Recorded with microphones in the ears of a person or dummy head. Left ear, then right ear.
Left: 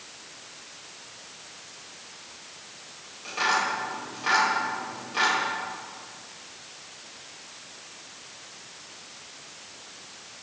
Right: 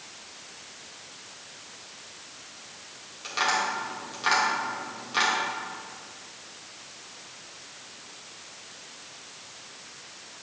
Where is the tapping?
30° right (ahead or behind), 2.5 m.